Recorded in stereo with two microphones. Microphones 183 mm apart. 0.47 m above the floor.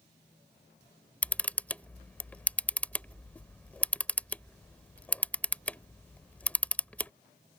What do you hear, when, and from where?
1.2 s a camera shutter: 10° left (ahead or behind)